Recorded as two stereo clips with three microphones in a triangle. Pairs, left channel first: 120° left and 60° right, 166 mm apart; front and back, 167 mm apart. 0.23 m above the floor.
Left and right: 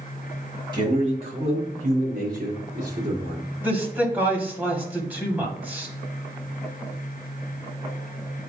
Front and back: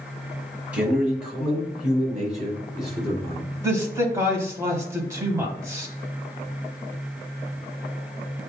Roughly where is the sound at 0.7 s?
Right.